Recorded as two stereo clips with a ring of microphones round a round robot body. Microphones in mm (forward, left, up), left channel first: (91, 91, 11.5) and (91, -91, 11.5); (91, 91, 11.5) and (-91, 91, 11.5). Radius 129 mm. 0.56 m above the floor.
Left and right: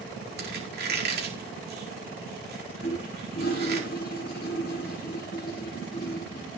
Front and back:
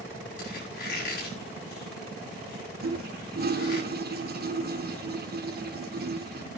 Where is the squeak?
65° right, 5 m.